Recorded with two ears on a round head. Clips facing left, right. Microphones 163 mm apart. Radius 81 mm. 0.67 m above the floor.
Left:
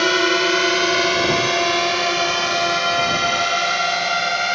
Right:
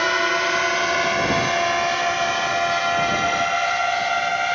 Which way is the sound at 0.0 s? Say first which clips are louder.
Left 5 dB; 45° left (ahead or behind).